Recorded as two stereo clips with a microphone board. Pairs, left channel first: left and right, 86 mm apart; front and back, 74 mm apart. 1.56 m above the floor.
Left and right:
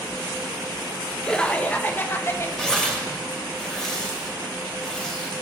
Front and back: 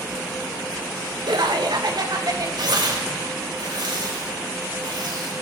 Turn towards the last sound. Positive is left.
turn(degrees=175)